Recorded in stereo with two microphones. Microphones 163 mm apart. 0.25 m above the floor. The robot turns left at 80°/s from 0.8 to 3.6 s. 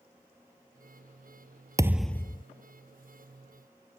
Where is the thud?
160° right; by 2.4 s 145° left.